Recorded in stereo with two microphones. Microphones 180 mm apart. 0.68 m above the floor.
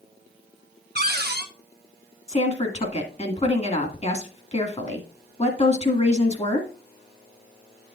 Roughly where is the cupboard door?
Right.